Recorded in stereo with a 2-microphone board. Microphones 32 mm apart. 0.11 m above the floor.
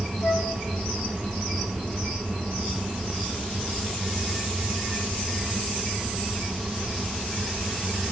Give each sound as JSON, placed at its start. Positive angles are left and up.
{"t": 0.2, "sound": "a flute", "side_deg": 55, "distance_m": 4.5}